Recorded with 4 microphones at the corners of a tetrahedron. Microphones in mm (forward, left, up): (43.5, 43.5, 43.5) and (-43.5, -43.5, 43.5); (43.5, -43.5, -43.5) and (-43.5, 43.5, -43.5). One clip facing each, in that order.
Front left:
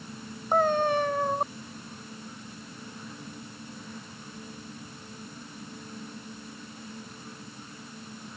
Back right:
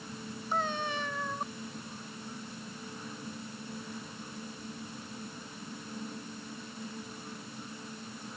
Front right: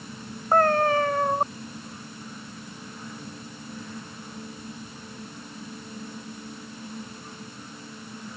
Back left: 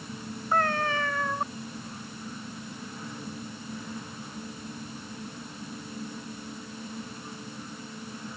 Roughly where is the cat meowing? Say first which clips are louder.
Front left 11 dB, front right 7 dB; ahead.